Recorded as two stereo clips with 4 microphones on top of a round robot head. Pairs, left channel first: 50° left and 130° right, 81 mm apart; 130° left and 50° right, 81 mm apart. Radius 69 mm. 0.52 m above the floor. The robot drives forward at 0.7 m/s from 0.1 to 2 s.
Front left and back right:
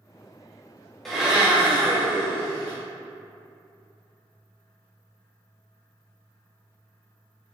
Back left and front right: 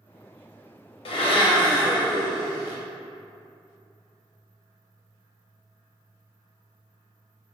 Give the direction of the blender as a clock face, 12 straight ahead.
7 o'clock.